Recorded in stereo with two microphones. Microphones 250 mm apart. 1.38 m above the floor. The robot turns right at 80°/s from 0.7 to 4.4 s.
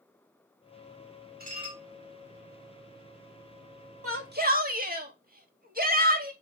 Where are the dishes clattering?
40° right, 2.5 m; by 1.8 s 5° right, 2.5 m.